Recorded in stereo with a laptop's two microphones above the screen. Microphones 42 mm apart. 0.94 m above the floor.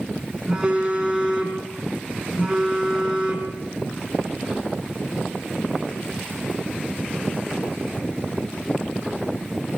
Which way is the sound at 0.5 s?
15° right (ahead or behind).